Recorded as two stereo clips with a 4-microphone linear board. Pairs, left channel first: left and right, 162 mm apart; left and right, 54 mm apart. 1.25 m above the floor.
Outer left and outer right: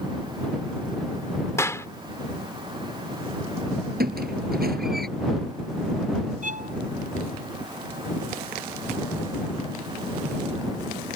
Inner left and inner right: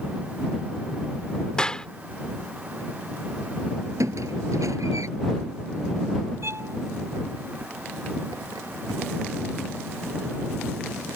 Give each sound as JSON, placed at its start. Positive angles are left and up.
{"t": 1.6, "sound": "a clap", "side_deg": 20}
{"t": 4.0, "sound": "a squeak", "side_deg": -70}
{"t": 6.4, "sound": "a violin", "side_deg": -50}